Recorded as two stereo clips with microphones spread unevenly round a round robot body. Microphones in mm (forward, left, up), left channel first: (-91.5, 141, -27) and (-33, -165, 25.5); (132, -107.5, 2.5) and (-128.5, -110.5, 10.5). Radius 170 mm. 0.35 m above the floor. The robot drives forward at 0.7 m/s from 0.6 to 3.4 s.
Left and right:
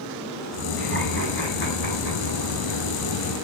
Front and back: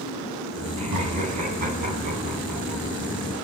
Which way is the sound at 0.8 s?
150° left.